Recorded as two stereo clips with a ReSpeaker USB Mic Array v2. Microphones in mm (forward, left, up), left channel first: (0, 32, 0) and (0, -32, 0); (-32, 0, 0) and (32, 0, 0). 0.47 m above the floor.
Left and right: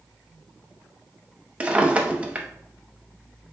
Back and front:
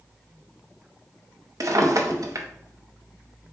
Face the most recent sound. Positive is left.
turn(degrees=-20)